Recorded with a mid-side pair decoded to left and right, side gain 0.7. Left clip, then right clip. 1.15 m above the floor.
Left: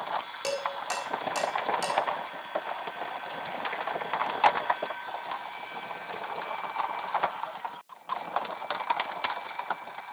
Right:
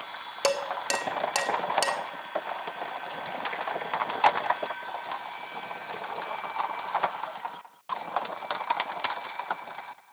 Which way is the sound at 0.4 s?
40° right.